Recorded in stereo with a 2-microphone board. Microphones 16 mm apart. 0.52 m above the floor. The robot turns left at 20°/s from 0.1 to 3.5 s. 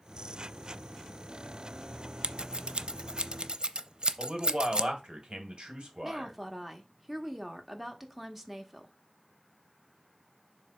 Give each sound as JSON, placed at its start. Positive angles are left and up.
{"t": 2.2, "sound": "scissors", "side_deg": -75, "distance_m": 0.5}
{"t": 4.2, "sound": "a man speaking", "side_deg": -60, "distance_m": 2.5}
{"t": 6.0, "sound": "a woman speaking", "side_deg": -10, "distance_m": 1.2}